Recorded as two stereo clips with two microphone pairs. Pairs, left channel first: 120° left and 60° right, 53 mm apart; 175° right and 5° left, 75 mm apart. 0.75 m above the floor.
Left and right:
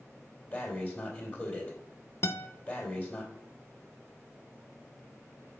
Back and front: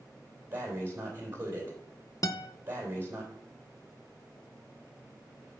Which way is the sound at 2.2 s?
150° left.